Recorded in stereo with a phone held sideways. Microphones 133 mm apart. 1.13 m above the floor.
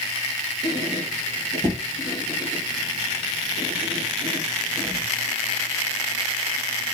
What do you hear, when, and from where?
0.6 s a squeak: 30° right (ahead or behind), 1.6 m